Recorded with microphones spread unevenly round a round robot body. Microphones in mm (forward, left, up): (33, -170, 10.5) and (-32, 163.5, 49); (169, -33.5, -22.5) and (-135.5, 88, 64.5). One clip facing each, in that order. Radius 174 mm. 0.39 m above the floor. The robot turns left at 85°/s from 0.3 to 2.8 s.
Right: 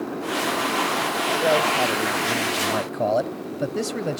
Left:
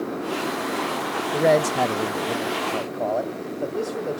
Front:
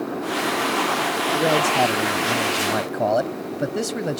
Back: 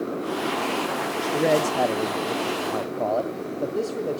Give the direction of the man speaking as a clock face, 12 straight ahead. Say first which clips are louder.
Left 4 dB, even; 9 o'clock.